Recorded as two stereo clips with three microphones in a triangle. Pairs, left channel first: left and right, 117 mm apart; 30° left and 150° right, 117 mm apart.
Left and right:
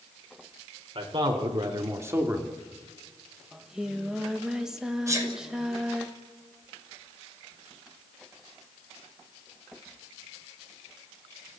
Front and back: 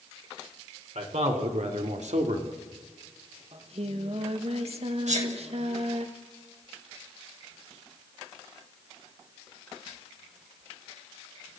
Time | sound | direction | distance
0.9 | a man speaking | 135° right | 3.5 m
3.5 | singing | 175° right | 1.6 m
5.1 | a sneeze | 155° right | 6 m